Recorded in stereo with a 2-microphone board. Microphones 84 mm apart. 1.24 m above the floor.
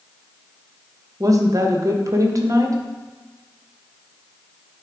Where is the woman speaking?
40° right (ahead or behind), 0.9 m.